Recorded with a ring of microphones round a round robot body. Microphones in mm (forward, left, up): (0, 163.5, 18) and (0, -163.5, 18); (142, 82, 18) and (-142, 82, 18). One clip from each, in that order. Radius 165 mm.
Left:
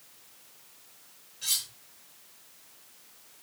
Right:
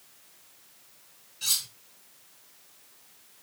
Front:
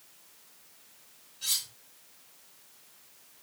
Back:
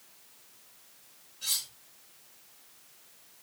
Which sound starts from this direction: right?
Cutlery clinking, at 1.4 s.